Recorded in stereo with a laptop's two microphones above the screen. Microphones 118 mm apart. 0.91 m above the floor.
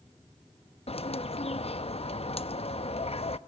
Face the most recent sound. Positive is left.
turn(degrees=55)  # may be behind; listen again after turning